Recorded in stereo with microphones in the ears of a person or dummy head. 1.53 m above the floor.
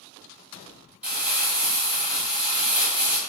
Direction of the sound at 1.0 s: 5° right (ahead or behind).